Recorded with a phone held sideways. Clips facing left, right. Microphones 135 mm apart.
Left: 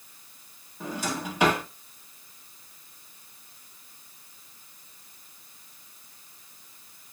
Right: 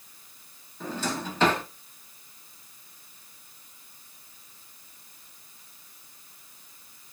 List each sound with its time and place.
0.8 s a drawer: 10° left (ahead or behind), 1.0 m